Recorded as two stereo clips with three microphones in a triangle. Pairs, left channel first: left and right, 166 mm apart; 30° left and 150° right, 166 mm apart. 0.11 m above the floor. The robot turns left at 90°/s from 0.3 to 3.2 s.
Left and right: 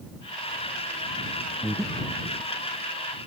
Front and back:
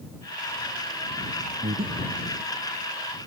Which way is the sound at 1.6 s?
160° right.